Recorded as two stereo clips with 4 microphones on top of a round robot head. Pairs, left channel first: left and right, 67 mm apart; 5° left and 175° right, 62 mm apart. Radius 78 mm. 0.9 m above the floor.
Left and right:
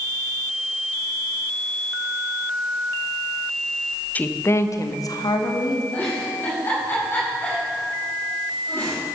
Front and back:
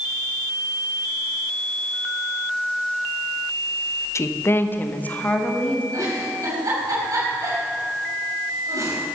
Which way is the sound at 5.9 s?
155° left.